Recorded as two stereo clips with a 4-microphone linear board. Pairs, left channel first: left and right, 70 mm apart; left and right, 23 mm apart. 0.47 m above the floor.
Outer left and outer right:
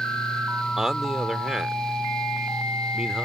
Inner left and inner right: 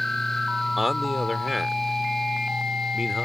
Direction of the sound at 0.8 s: 5° right (ahead or behind).